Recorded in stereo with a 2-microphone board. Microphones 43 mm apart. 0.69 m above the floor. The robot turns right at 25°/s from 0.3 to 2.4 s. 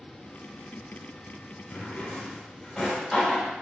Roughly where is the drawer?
Left.